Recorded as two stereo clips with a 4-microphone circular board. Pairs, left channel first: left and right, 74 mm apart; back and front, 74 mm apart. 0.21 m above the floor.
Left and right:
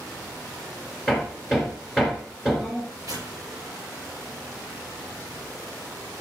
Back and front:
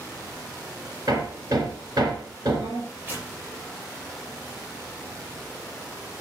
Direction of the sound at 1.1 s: 5° right.